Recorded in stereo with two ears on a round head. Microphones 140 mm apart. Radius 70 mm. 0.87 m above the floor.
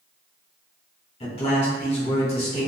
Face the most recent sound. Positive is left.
turn(degrees=40)  # may be behind; listen again after turning